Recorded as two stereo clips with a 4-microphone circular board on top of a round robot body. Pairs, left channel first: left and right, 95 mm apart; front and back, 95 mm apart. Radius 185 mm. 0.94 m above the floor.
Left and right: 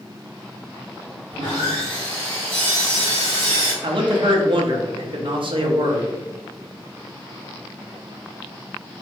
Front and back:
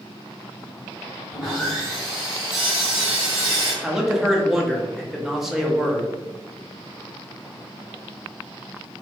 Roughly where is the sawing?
Right.